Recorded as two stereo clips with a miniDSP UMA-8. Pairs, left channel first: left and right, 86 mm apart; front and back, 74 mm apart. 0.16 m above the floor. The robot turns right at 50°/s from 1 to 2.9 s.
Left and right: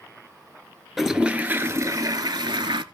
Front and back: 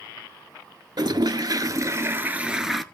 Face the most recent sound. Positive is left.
turn(degrees=-85)